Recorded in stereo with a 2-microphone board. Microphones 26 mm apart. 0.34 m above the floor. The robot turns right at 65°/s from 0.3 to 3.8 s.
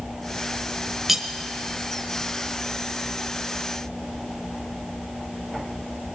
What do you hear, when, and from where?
1.1 s cutlery clinking: 5° right (ahead or behind), 0.7 m; by 1.3 s 15° right (ahead or behind), 0.7 m